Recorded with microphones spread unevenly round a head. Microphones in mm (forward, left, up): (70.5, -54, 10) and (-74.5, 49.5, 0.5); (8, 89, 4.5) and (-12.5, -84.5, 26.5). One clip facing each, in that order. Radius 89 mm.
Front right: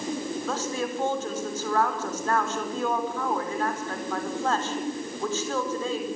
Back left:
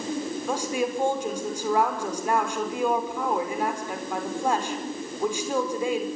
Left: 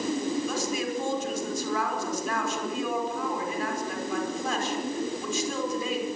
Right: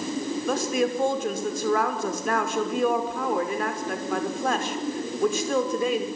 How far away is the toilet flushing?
I don't hear a toilet flushing.